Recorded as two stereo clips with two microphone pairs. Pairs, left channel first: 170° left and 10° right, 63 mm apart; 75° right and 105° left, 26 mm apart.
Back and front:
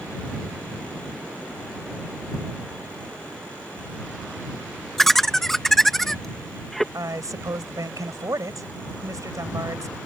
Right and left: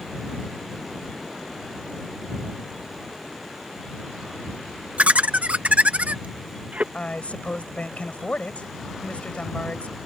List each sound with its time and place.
5.0 s laughter: 85° left
6.9 s a woman speaking: 40° right